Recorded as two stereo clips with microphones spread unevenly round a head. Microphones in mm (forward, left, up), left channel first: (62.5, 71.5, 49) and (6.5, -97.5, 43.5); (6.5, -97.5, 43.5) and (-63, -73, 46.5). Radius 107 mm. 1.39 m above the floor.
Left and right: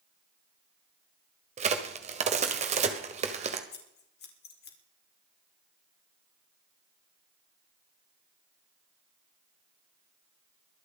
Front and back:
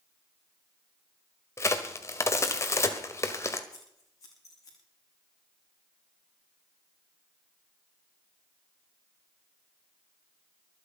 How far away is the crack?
About 1.6 m.